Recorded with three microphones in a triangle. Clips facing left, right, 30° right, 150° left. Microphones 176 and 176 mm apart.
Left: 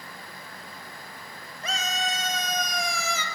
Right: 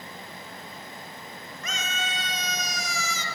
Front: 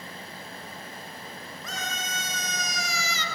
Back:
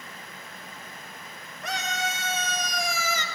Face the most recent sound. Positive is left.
turn(degrees=110)